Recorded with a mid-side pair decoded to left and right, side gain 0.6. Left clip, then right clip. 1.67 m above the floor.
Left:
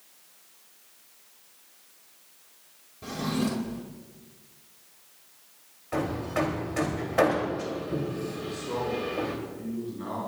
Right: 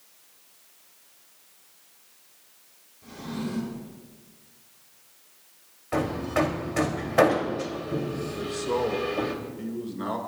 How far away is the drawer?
About 4 m.